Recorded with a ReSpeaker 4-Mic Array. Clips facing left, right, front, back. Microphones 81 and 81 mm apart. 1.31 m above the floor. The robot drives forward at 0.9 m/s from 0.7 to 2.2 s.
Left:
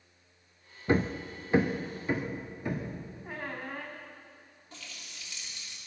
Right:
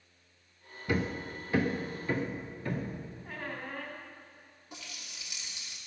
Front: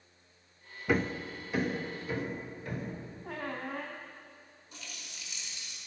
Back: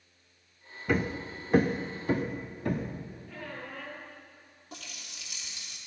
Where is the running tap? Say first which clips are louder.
Right 1 dB, back 3 dB; 165° right, 2 m.